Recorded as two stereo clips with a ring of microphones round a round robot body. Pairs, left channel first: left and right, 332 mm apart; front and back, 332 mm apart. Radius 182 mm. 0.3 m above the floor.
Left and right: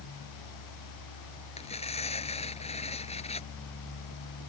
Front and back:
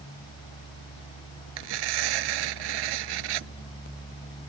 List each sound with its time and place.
1.6 s tearing paper: 165° left